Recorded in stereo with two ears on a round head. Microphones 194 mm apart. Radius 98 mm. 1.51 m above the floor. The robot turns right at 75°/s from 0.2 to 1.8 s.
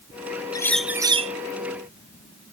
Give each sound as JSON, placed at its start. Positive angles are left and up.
{"t": 0.5, "sound": "a bird", "azimuth_deg": 160}